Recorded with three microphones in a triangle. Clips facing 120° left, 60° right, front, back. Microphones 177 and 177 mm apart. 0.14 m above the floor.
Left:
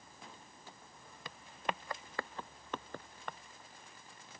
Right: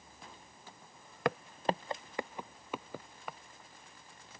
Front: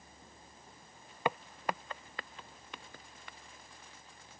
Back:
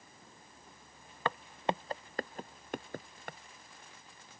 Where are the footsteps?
75° right; by 3.4 s 145° right.